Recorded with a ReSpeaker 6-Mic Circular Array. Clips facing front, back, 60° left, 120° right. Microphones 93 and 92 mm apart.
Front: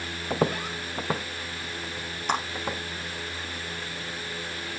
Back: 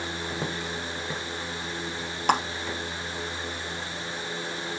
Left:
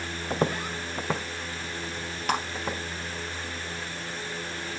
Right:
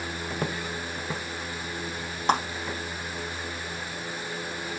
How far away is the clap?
About 3 m.